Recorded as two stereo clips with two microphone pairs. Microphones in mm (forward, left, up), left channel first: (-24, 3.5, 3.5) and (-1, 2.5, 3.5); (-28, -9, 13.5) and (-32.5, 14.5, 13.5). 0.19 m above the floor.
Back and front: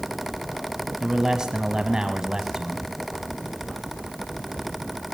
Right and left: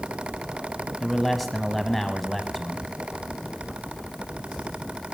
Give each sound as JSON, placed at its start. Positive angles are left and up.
{"t": 1.0, "sound": "a man speaking", "azimuth_deg": 5, "distance_m": 1.0}